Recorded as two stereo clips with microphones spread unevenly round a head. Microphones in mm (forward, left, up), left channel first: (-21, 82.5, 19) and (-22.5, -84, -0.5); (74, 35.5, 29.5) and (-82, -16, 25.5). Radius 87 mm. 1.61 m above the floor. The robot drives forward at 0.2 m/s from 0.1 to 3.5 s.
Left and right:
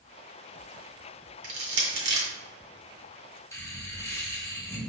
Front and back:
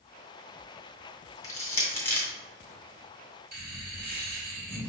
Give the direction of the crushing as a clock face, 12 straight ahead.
2 o'clock.